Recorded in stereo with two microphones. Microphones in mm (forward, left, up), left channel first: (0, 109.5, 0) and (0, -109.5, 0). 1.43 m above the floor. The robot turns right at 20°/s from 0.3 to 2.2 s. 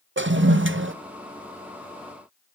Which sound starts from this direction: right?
A toilet flushing, at 0.2 s.